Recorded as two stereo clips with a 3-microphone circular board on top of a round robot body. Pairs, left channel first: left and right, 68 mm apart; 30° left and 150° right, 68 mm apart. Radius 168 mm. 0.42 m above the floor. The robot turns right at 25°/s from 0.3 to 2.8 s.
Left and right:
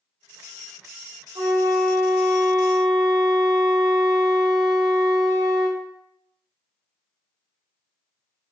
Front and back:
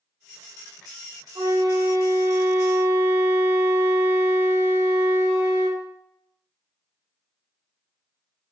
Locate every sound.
1.4 s a flute: 110° right, 0.7 m; by 5.8 s 75° right, 0.7 m